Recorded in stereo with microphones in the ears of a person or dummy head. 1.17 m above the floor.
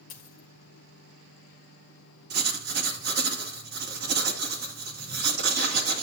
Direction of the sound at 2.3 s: 55° right (ahead or behind).